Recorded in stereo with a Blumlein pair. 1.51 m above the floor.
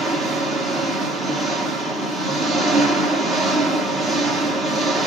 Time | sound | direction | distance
0.0 | an engine running | 10° right | 1.5 m